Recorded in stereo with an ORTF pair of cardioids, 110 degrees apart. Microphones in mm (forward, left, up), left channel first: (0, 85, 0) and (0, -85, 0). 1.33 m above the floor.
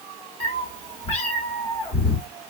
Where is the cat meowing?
40° left, 1.8 m.